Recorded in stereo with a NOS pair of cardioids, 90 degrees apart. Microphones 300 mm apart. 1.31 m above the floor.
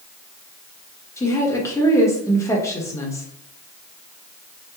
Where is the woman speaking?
10° left, 1.2 m.